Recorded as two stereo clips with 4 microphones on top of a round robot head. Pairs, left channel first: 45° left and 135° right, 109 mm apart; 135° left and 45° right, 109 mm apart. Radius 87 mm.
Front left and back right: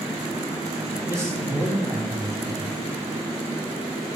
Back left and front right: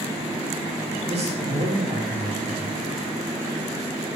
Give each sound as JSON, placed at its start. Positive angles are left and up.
{"t": 1.1, "sound": "a man speaking", "azimuth_deg": -70, "distance_m": 3.5}